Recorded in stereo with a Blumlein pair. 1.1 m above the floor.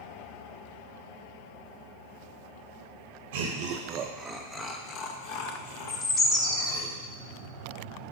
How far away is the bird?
About 1.3 m.